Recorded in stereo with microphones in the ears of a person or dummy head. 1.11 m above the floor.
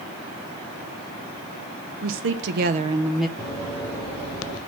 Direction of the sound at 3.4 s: 10° right (ahead or behind).